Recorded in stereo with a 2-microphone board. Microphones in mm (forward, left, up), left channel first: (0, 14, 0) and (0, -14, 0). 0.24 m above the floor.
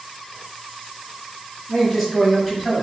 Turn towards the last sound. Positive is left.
turn(degrees=-10)  # may be behind; listen again after turning